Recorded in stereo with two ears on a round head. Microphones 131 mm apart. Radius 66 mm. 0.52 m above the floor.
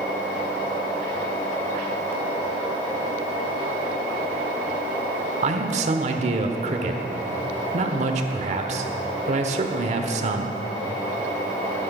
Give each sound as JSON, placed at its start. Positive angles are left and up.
{"t": 5.4, "sound": "a man speaking", "side_deg": -50, "distance_m": 1.2}